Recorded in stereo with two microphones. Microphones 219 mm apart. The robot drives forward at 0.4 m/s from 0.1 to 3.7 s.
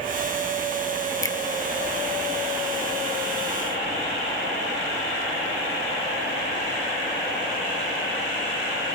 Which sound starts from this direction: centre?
A finger snap, at 1.2 s.